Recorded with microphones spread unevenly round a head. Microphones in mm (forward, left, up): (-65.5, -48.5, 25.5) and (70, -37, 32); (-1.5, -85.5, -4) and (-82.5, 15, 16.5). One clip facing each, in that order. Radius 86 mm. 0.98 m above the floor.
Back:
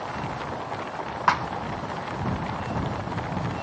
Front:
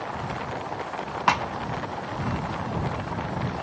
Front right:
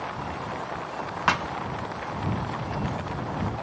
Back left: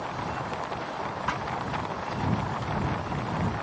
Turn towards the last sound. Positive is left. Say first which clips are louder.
# even, front right 9 dB
turn(degrees=-60)